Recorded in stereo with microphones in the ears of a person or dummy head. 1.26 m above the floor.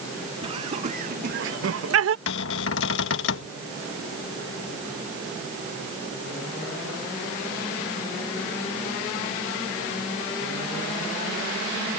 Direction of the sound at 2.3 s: 70° left (ahead or behind).